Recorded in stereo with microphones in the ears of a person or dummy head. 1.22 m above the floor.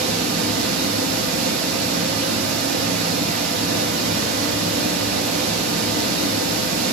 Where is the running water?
65° right (ahead or behind), 1.7 m.